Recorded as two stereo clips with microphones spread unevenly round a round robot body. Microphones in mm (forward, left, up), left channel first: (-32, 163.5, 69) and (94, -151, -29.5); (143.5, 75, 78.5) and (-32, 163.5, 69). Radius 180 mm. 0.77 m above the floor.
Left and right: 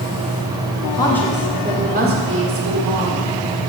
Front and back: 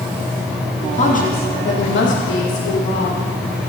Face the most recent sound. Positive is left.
turn(degrees=-40)